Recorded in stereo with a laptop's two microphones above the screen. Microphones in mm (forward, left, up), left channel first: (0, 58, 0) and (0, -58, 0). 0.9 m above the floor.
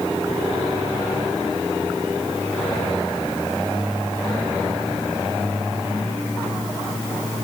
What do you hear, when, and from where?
Only background noise.